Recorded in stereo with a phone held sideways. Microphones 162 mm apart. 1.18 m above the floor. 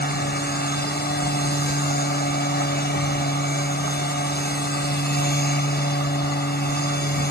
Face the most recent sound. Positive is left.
turn(degrees=85)